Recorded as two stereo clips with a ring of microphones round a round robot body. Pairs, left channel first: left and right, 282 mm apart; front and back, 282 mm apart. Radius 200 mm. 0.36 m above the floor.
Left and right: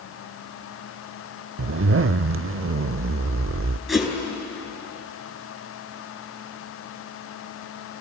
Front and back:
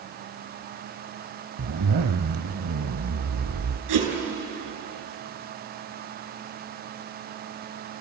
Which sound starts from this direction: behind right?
A zipper, at 1.6 s.